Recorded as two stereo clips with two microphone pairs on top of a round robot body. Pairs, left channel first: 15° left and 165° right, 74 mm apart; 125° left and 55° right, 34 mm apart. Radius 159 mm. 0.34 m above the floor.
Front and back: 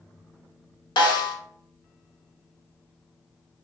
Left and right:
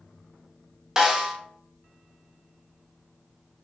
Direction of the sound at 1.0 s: 10° left.